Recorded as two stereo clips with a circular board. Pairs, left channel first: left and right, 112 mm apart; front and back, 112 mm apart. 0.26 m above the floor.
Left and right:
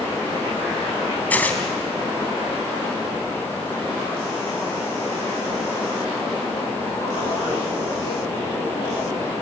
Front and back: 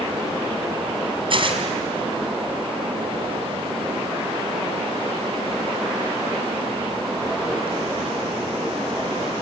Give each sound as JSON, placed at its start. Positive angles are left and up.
{"t": 1.3, "sound": "tearing paper", "azimuth_deg": 160, "distance_m": 2.0}